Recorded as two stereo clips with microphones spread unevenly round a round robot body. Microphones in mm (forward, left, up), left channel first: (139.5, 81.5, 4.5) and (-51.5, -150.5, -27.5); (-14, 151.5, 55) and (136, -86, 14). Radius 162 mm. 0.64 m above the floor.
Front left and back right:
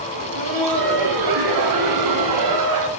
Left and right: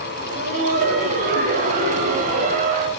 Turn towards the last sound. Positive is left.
turn(degrees=-120)